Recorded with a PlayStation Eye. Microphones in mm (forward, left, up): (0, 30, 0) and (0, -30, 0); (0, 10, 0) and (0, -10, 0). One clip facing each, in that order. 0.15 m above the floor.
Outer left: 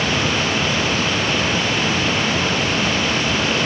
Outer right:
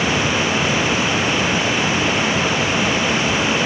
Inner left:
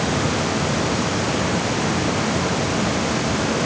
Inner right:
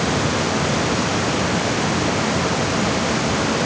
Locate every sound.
Only background noise.